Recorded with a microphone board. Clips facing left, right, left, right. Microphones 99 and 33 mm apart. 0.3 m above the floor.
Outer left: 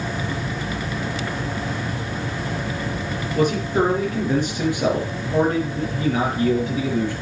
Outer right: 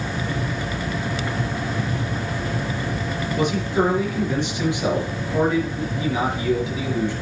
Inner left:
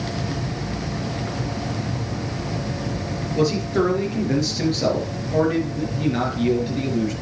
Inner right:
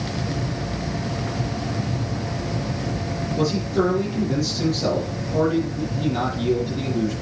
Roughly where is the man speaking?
Left.